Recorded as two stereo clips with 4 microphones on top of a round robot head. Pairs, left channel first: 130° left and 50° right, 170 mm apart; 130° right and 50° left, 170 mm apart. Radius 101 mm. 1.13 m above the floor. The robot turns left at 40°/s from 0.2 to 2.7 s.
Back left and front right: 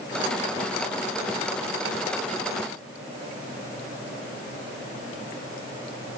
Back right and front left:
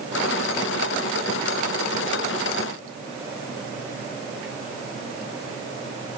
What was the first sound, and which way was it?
Only background noise.